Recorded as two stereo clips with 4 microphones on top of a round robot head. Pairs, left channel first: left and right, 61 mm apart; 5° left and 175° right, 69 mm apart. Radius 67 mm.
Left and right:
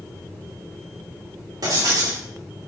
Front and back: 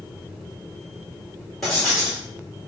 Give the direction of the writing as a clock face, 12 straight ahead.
3 o'clock.